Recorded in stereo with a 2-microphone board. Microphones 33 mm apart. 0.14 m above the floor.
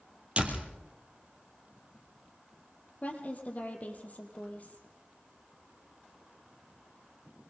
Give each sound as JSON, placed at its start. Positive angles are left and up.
{"t": 0.4, "sound": "a door slam", "side_deg": -40, "distance_m": 3.0}
{"t": 3.0, "sound": "a woman speaking", "side_deg": 45, "distance_m": 4.0}